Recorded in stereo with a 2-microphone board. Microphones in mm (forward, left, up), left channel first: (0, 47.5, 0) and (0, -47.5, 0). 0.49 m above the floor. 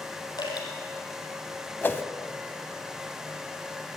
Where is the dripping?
45° left (ahead or behind), 5 m.